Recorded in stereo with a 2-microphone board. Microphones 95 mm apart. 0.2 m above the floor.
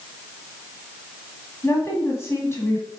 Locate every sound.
1.6 s a woman speaking: 30° left (ahead or behind), 1.6 m